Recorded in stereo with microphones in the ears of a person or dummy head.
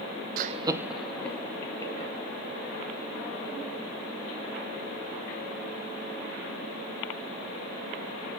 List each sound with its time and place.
0.4 s laughter: 55° right (ahead or behind), 0.6 m; by 2.1 s 20° left (ahead or behind), 2 m